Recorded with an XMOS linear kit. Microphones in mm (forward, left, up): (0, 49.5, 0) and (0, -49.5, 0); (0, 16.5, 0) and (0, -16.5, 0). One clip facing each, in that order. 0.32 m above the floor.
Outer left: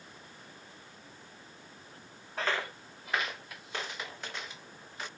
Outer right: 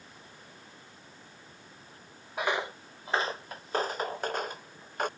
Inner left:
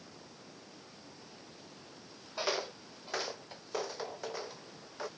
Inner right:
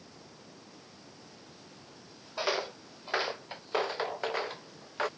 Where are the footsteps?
15° right (ahead or behind); by 5.1 s 55° right (ahead or behind).